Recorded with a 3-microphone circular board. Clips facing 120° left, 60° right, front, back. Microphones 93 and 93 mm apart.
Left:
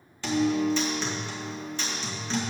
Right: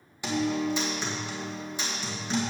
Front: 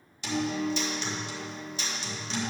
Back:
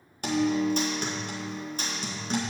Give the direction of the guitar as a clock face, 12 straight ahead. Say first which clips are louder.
Left 3 dB, back 5 dB; 5 o'clock.